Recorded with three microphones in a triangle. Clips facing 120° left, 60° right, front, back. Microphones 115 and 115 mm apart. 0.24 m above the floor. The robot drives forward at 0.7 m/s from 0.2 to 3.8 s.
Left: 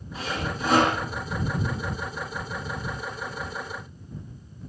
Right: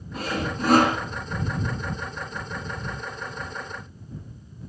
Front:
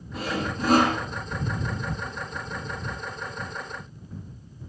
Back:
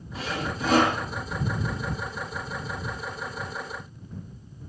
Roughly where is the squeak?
I don't hear a squeak.